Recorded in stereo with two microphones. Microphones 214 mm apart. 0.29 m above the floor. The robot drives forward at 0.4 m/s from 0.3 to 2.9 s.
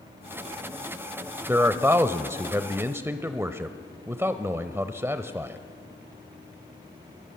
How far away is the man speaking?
About 0.9 m.